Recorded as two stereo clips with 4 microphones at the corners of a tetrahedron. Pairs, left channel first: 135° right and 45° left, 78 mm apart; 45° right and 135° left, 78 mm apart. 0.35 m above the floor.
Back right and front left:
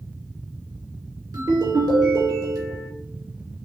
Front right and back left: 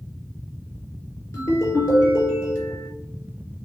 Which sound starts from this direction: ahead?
A ringtone, at 1.3 s.